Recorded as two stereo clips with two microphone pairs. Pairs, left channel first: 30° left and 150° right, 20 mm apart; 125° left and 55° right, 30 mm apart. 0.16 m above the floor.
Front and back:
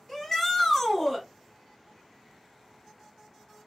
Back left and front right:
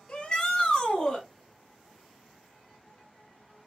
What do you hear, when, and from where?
0.1 s a shout: 85° left, 1.3 m